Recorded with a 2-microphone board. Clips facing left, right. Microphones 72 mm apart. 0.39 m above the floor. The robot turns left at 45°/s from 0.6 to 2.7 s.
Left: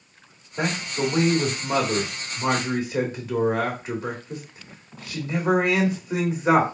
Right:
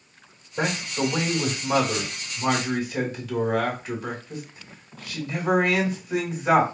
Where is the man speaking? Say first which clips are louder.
Even; 5° right (ahead or behind), 1.5 m; by 6.6 s 30° left (ahead or behind), 1.5 m.